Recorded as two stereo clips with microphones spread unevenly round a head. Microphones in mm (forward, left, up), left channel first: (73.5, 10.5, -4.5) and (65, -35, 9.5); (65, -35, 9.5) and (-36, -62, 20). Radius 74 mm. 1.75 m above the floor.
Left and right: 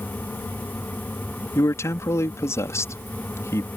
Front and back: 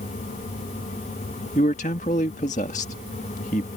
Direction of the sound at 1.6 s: 60° left.